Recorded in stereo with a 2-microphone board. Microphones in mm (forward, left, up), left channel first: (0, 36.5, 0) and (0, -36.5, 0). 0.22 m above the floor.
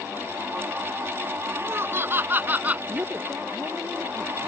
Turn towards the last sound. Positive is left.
turn(degrees=-35)  # may be behind; listen again after turning